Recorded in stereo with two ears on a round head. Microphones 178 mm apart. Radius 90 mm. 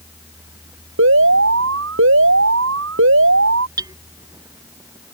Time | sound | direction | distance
1.0 | an alarm | 75° right (ahead or behind) | ?
3.8 | hammering | 20° right (ahead or behind) | ?